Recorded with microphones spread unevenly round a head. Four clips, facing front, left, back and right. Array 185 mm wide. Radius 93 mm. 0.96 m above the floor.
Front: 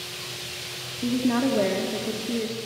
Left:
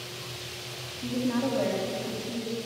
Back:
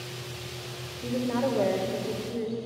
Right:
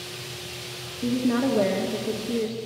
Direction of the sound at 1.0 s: 25° right.